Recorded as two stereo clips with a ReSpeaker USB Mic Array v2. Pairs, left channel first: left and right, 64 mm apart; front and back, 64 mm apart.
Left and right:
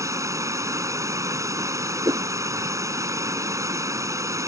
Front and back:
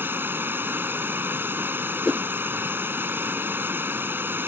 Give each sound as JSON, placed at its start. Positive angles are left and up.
{"t": 0.0, "sound": "running water", "azimuth_deg": -125}
{"t": 2.0, "sound": "a whoosh", "azimuth_deg": -90}